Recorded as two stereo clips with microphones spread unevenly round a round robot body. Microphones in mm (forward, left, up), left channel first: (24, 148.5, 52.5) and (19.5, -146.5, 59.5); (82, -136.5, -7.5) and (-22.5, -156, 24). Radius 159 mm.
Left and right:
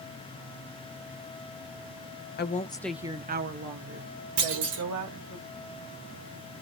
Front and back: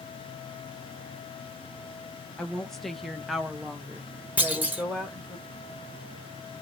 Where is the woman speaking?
70° left, 0.8 m; by 5.4 s 80° right, 2 m.